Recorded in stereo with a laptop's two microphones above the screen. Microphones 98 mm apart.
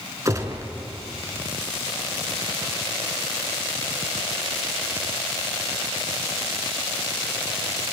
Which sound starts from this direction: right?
A gunshot, at 0.2 s.